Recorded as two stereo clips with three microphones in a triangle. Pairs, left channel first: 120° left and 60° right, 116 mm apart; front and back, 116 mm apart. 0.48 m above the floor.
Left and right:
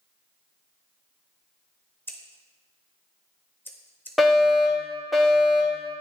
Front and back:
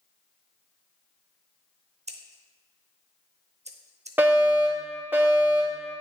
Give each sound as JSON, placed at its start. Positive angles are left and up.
{"t": 2.1, "sound": "scissors", "azimuth_deg": -170, "distance_m": 0.7}
{"t": 4.2, "sound": "a fire alarm", "azimuth_deg": -150, "distance_m": 1.8}